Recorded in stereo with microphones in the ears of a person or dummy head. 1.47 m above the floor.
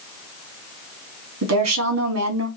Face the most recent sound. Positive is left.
turn(degrees=-65)  # may be behind; listen again after turning